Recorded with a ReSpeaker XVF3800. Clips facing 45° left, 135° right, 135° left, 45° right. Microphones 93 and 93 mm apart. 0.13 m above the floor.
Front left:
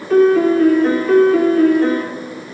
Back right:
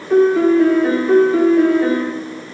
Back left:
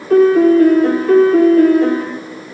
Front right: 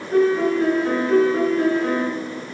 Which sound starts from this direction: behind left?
A piano, at 0.1 s.